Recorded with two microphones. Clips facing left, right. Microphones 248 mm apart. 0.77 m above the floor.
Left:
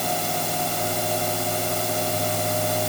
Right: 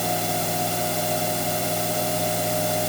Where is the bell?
No bell in this recording.